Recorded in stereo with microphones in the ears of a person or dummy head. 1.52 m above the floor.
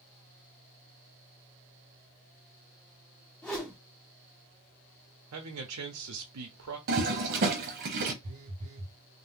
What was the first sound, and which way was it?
A whoosh, 10° left (ahead or behind).